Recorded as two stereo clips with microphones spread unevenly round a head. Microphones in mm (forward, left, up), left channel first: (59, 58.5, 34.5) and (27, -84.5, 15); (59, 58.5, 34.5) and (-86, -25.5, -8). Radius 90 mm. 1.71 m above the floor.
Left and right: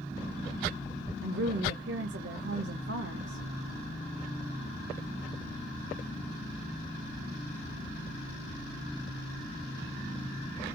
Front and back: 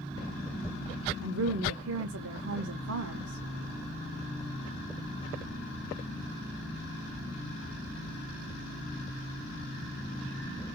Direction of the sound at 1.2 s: 130° right.